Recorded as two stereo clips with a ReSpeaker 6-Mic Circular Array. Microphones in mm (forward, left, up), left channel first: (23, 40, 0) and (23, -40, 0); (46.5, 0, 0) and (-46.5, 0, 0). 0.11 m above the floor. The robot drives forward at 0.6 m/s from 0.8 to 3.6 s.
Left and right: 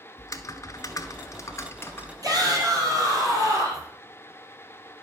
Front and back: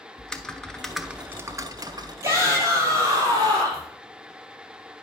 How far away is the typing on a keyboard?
About 0.6 m.